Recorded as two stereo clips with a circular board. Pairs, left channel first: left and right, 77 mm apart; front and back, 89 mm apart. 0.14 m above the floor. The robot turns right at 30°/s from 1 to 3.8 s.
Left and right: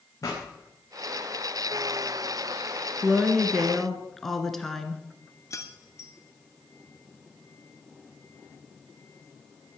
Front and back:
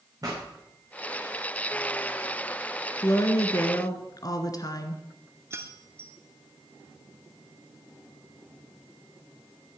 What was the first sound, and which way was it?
A pop, 135° left.